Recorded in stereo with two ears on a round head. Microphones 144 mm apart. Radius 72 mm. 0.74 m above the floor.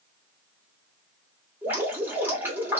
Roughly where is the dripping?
Centre.